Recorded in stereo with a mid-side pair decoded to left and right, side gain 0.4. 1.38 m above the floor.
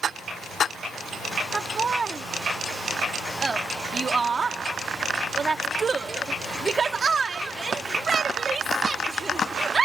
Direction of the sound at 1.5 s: 40° right.